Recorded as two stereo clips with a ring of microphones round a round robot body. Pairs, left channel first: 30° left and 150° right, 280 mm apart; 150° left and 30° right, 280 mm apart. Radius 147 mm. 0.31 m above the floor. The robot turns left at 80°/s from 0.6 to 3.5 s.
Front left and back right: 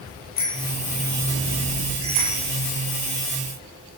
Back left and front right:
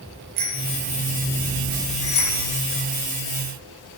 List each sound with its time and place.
0.4 s a bicycle bell: 30° right, 8 m; by 2.4 s 170° right, 8 m